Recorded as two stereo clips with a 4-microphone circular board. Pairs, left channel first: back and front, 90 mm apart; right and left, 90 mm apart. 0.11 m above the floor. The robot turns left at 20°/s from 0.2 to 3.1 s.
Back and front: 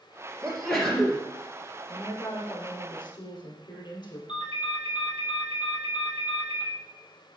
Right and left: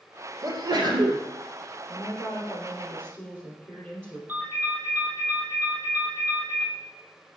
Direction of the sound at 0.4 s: 105° left.